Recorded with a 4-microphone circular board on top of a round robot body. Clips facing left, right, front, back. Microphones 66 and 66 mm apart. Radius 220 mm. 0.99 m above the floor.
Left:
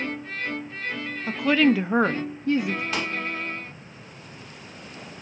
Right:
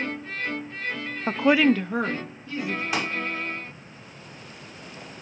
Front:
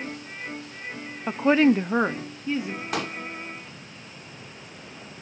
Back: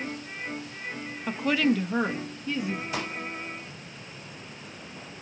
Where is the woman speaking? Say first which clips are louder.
Right 1 dB, front 6 dB; 60° right, 0.5 m; by 2.8 s 70° left, 0.9 m.